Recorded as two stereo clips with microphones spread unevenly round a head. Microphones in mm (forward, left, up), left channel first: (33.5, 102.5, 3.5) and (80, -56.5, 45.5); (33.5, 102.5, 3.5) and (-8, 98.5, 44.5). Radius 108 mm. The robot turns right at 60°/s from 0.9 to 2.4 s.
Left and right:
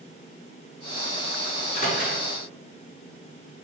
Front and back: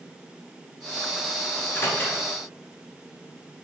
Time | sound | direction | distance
1.6 | a microwave | 40° left | 3 m